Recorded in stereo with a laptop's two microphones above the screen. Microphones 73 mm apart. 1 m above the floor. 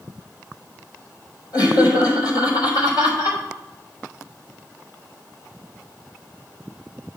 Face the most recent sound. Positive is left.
turn(degrees=70)  # may be behind; listen again after turning